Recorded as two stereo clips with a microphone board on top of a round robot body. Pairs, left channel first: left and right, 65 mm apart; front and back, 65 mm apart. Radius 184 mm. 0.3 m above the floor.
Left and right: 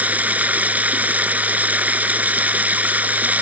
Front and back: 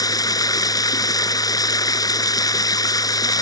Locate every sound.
0.0 s running water: 20° right